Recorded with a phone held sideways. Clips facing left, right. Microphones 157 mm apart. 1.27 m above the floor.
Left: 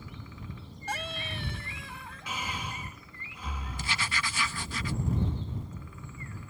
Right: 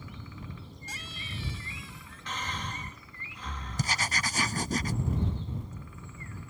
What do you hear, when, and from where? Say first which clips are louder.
0.9 s a scream: left 10 dB; 65° left (ahead or behind)
2.3 s breathing: even; 10° left (ahead or behind)
3.8 s writing: right 3 dB; 40° right (ahead or behind)